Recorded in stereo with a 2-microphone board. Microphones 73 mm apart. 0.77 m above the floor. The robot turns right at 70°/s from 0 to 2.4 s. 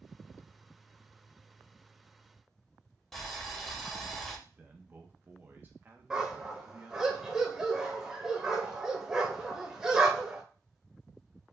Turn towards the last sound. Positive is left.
turn(degrees=-10)  # may be behind; listen again after turning